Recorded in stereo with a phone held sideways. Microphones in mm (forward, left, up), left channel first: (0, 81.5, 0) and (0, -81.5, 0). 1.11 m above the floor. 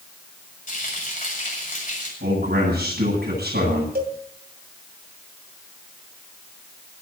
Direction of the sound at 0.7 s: 55° left (ahead or behind).